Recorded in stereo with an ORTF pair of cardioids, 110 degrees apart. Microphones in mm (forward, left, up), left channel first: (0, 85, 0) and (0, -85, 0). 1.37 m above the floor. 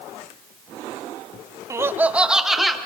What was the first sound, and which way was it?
Laughter, 20° right.